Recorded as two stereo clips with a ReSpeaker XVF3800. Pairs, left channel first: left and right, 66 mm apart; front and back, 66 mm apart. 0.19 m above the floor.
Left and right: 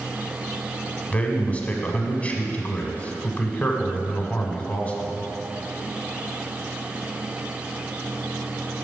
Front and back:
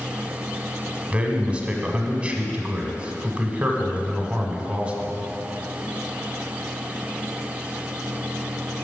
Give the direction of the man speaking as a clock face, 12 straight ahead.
8 o'clock.